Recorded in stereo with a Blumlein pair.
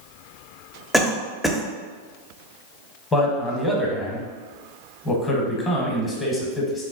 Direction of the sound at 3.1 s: 15° left.